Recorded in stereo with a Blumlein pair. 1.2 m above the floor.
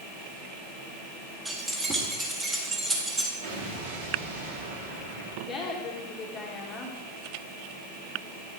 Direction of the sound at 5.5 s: 25° left.